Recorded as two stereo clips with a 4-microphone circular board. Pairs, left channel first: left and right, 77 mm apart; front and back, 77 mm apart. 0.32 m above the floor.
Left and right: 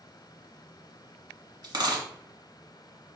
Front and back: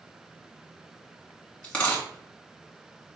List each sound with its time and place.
1.6 s a dropped coin: 75° right, 1.3 m